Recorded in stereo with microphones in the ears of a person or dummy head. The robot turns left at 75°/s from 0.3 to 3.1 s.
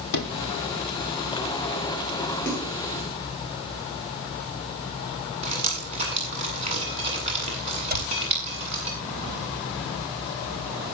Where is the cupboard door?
55° right (ahead or behind), 9.5 m.